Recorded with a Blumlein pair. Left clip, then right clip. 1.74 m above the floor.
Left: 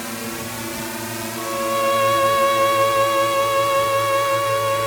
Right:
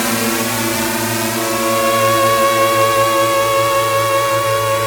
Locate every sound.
0.0 s a drone: 60° right; by 4.9 s 70° right
1.4 s a violin: 10° right